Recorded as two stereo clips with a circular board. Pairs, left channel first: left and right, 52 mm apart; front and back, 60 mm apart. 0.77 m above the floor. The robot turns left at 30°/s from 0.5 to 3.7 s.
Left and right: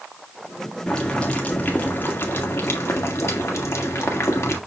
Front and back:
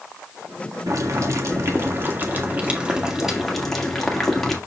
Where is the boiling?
170° left, 1.9 m; by 4.6 s 85° left, 1.9 m.